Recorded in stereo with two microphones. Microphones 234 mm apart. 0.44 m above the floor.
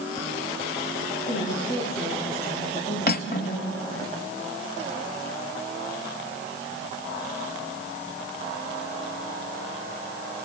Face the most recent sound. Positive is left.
turn(degrees=40)  # may be behind; listen again after turning